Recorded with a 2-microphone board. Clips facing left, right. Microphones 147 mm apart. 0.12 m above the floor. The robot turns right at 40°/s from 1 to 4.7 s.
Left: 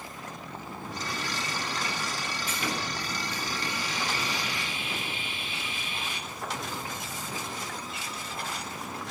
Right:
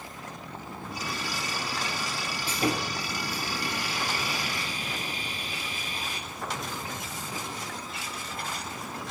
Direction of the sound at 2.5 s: 140° right.